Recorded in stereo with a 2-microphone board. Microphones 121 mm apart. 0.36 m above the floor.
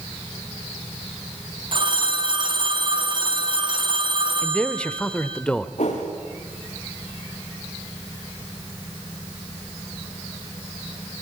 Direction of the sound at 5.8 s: 70° left (ahead or behind).